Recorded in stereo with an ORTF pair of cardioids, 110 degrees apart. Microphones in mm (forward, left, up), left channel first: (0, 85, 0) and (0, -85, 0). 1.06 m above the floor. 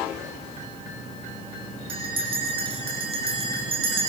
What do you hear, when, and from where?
1.9 s a bell: 35° right, 8.5 m